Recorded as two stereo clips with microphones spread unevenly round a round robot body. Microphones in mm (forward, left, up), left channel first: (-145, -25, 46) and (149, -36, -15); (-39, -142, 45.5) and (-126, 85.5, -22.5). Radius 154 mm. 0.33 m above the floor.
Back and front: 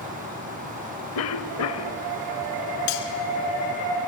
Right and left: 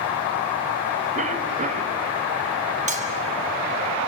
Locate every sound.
1.1 s a cough: 140° left, 2 m
2.9 s cutlery clinking: 170° left, 3.5 m